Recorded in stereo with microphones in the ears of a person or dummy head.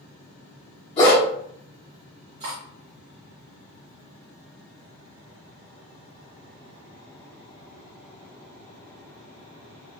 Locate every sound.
1.0 s a dog barking: 45° left (ahead or behind), 1.4 m
2.4 s cutlery clinking: 35° right (ahead or behind), 1.5 m